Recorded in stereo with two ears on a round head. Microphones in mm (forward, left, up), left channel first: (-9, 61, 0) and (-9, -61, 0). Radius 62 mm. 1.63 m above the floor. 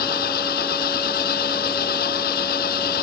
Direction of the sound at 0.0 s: 65° left (ahead or behind).